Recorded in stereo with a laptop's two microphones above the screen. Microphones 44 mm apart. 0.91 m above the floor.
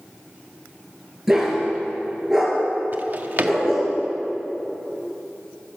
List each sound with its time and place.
1.3 s a dog barking: 5° right (ahead or behind), 3.5 m
2.9 s a drawer: 40° right (ahead or behind), 0.7 m